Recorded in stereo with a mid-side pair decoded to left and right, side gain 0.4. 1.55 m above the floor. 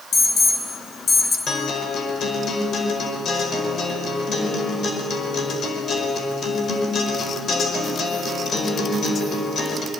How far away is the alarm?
About 4 m.